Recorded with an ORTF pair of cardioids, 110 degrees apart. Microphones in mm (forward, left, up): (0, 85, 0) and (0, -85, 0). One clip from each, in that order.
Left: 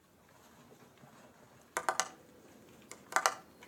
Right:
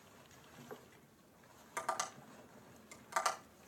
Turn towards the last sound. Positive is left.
turn(degrees=50)